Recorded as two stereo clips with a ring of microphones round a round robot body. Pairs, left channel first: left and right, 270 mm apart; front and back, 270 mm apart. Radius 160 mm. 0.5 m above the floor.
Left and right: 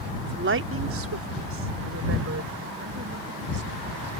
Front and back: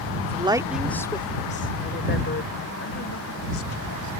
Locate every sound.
0.2 s a woman speaking: 125° right; by 4.1 s 35° right